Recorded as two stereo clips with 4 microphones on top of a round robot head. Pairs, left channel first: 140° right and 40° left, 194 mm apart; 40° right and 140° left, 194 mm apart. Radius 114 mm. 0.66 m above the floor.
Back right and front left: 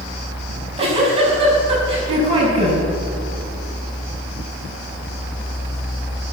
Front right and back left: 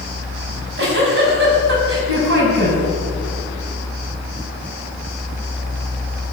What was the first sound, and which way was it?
A giggle, 105° left.